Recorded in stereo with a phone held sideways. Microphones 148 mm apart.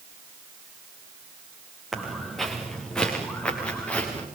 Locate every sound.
1.9 s footsteps: centre (ahead or behind), 5.5 m; by 4.3 s 10° left (ahead or behind), 7 m